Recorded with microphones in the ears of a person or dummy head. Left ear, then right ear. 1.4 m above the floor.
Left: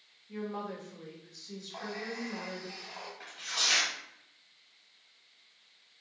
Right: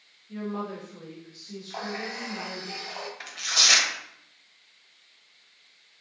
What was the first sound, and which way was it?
A woman speaking, 30° left (ahead or behind).